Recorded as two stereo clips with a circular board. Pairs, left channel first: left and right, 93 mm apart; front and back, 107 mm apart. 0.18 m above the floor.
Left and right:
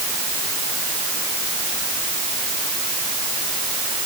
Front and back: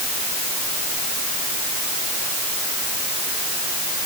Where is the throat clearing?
I don't hear throat clearing.